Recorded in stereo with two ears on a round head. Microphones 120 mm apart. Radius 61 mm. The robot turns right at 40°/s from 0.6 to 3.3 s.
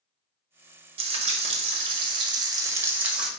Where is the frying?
100° right, 0.9 m; by 3.3 s 5° right, 0.9 m.